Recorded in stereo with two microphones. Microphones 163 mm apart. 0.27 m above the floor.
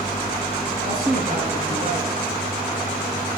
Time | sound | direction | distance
0.8 | a man speaking | 55° right (ahead or behind) | 3.5 m